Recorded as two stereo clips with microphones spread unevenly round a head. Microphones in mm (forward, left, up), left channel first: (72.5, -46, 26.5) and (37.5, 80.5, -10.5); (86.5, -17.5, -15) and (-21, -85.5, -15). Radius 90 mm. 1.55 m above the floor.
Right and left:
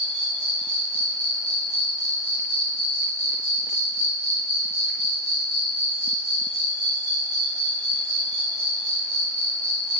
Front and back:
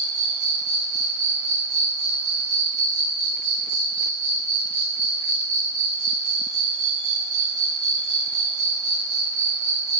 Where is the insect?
175° left, 1.6 m.